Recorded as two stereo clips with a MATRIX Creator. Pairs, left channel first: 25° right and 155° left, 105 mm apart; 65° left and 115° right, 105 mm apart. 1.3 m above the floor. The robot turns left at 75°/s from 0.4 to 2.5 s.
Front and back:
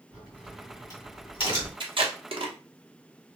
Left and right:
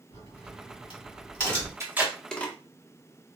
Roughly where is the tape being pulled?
Behind.